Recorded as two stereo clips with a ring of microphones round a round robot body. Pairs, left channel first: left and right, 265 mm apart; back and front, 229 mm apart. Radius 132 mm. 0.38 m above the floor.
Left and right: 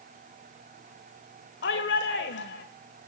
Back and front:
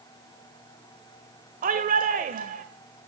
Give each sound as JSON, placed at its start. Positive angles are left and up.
{"t": 1.6, "sound": "a shout", "azimuth_deg": 50, "distance_m": 1.4}